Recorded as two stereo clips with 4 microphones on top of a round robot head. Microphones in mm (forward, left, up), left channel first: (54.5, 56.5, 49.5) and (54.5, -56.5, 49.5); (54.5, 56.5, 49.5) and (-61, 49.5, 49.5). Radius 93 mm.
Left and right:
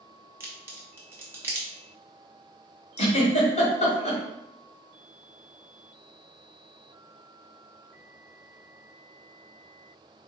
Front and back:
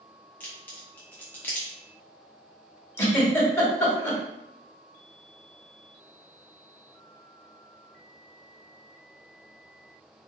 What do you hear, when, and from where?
0.4 s a crack: 55° right, 0.5 m
3.0 s a giggle: 75° left, 1.5 m